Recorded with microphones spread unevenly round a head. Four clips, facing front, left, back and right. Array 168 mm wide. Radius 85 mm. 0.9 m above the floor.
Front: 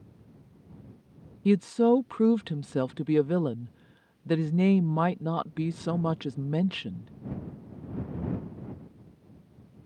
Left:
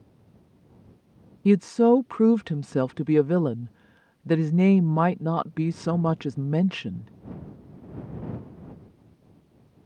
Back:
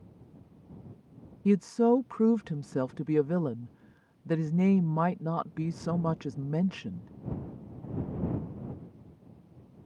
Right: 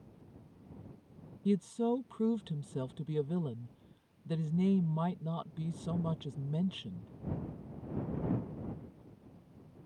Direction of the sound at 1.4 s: 70° left.